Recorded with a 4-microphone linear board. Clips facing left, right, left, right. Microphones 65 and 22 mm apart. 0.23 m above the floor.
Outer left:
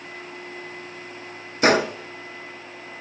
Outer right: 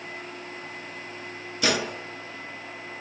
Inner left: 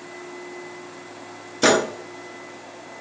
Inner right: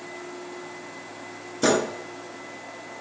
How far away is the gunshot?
About 0.7 m.